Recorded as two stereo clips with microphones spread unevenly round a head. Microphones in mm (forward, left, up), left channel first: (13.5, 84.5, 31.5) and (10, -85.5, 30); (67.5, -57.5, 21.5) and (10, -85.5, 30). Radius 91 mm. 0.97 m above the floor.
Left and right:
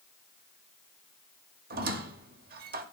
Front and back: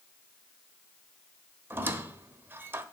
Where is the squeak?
115° right, 0.9 m.